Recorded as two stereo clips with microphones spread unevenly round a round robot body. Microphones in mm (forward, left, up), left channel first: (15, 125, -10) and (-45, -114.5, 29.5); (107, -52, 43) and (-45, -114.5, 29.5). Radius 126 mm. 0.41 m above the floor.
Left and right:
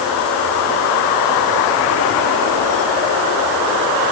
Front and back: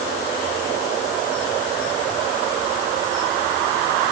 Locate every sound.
Only background noise.